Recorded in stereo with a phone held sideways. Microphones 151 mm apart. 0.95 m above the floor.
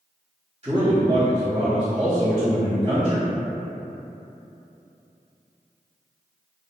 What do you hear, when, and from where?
0.6 s a man speaking: 45° right (ahead or behind), 1.1 m